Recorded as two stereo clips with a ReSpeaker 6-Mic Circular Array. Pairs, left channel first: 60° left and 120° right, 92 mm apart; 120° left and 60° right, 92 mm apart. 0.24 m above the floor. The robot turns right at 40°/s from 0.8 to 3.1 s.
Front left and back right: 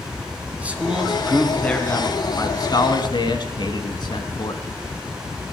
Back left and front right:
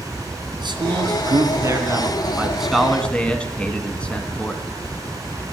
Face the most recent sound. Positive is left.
turn(degrees=45)